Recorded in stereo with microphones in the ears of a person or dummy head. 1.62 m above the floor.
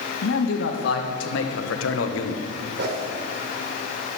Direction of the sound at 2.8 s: 65° right (ahead or behind).